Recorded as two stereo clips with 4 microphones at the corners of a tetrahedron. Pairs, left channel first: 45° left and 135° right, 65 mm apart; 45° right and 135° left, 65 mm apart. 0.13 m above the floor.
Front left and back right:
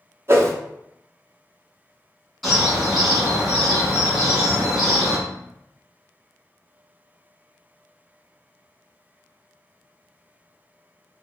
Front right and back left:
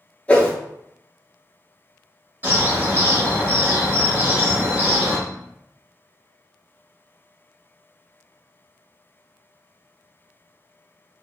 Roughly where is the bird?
Behind left.